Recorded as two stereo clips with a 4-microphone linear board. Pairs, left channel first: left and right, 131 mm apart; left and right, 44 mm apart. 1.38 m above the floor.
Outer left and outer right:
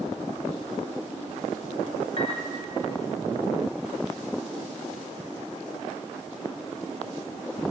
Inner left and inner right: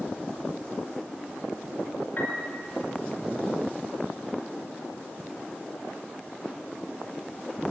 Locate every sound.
2.2 s a piano: 50° left (ahead or behind), 6 m